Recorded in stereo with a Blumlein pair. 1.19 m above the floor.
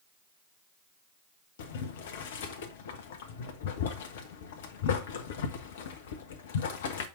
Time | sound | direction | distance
1.6 | boiling | 55° left | 1.2 m